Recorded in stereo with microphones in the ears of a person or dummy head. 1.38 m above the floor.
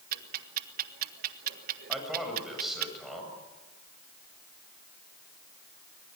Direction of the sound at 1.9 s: 5° right (ahead or behind).